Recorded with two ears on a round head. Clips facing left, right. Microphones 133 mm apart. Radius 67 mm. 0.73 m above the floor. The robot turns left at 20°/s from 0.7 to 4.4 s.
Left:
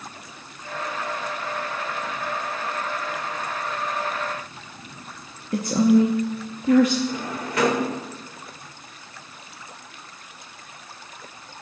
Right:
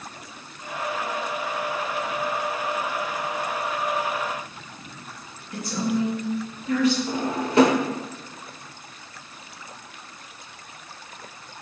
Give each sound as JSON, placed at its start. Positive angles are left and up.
{"t": 5.5, "sound": "a woman speaking", "side_deg": 40, "distance_m": 0.8}
{"t": 7.1, "sound": "a drawer", "side_deg": -25, "distance_m": 0.9}